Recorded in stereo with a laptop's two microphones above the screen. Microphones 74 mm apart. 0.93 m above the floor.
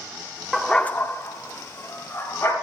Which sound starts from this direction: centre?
A dog barking, at 0.5 s.